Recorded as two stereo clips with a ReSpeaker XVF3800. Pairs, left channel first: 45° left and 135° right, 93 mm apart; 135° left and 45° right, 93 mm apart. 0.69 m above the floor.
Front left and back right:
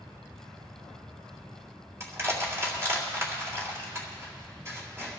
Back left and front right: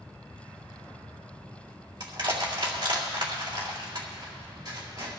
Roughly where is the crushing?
Right.